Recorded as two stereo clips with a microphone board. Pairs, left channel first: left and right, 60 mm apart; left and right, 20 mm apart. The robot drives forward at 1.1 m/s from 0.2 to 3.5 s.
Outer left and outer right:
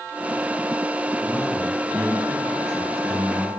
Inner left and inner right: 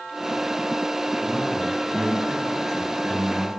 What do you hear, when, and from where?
1.2 s a man speaking: 20° left (ahead or behind), 1.5 m; by 3.5 s 10° left (ahead or behind), 3.5 m